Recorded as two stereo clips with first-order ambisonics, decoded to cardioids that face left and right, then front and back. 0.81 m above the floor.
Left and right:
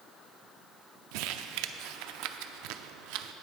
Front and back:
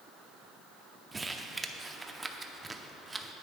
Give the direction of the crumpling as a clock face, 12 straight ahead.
3 o'clock.